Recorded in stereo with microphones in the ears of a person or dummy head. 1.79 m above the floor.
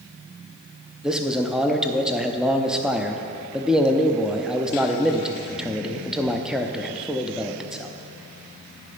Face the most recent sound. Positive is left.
turn(degrees=0)  # may be behind; listen again after turning